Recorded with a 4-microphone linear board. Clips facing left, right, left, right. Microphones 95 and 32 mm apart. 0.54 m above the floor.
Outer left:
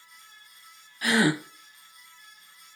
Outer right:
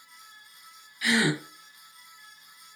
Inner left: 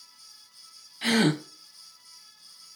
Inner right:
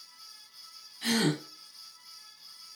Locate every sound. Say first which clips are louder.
1.0 s a gasp: outer left 2 dB, inner left 5 dB; 45° left (ahead or behind), 1.0 m